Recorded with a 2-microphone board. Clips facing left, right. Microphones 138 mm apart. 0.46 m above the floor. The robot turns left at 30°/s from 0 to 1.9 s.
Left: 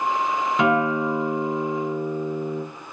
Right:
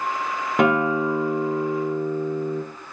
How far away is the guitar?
About 0.5 m.